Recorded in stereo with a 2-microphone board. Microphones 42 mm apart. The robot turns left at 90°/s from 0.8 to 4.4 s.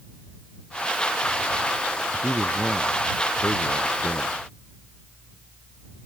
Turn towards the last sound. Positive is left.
turn(degrees=45)